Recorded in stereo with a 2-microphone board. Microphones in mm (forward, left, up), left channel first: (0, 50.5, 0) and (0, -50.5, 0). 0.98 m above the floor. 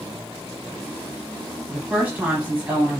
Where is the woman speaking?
15° right (ahead or behind), 0.9 m.